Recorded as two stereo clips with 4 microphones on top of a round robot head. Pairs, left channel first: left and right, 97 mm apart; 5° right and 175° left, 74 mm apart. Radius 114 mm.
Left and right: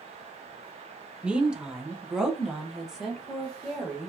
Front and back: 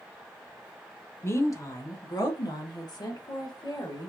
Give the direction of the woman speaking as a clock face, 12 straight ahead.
1 o'clock.